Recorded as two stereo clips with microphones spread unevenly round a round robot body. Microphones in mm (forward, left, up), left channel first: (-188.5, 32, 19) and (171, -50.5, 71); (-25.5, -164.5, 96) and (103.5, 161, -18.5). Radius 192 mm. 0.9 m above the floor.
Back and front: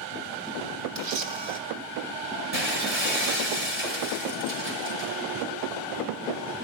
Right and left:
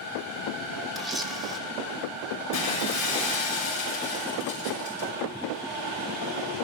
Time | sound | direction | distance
0.9 | a camera shutter | 25° right | 1.6 m
2.5 | breaking glass | 70° right | 6 m